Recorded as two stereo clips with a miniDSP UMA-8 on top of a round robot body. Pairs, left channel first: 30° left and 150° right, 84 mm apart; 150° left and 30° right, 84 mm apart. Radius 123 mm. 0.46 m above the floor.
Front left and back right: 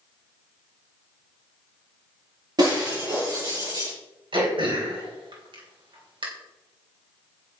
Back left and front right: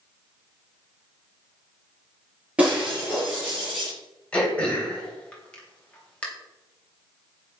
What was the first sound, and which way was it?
Breaking glass, 105° right.